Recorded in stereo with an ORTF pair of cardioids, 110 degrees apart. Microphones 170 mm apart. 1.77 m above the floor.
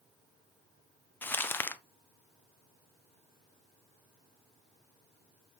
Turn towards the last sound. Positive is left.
turn(degrees=10)